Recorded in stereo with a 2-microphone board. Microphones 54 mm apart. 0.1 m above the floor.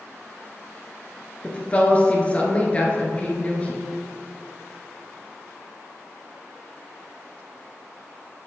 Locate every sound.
1.4 s a woman speaking: 25° left (ahead or behind), 1.5 m